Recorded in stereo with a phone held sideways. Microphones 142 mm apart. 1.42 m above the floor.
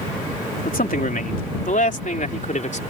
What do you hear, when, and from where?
0.7 s a man speaking: 85° left; by 2.8 s 60° left (ahead or behind)